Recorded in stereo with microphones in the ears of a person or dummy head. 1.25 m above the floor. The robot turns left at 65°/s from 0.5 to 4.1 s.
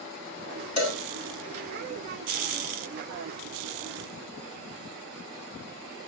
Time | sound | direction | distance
0.8 | a cowbell | 50° left (ahead or behind) | 4 m